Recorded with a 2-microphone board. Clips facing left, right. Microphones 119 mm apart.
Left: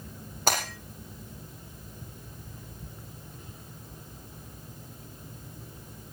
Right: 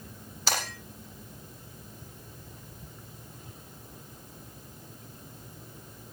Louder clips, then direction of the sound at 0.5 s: Left 4 dB; 50° left (ahead or behind).